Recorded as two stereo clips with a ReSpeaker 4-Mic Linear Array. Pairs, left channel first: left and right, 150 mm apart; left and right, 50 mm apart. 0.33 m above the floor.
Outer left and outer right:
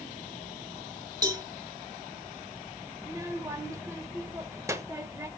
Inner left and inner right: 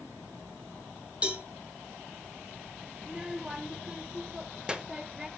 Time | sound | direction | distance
1.2 | a cowbell | 25° right (ahead or behind) | 1.3 m
3.0 | a child speaking | 20° right (ahead or behind) | 0.8 m